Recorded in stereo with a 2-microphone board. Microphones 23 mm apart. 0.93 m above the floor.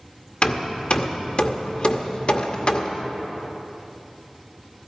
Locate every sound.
0.4 s hammering: 60° left (ahead or behind), 1.0 m